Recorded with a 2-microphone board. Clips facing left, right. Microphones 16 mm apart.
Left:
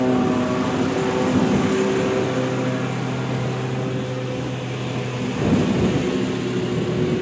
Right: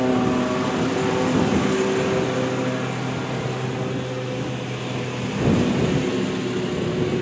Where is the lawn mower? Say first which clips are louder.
Left 1 dB; 5° right (ahead or behind); by 7.2 s centre (ahead or behind).